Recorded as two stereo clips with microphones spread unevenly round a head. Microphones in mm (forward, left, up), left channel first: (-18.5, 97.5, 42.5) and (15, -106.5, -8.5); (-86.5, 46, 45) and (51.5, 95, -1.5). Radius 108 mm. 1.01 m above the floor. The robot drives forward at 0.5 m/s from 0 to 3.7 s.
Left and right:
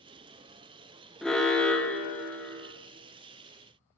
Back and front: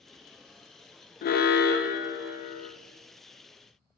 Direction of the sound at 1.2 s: 160° right.